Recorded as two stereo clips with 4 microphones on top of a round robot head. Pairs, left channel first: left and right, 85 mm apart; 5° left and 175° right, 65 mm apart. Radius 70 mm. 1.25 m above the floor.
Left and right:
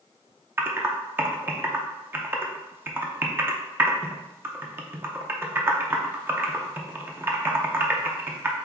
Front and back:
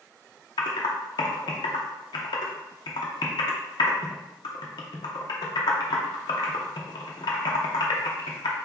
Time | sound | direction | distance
0.6 | typing on a keyboard | 25° right | 0.7 m